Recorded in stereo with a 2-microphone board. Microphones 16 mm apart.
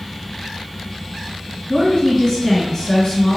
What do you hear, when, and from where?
1.7 s a woman speaking: 35° left (ahead or behind), 1.6 m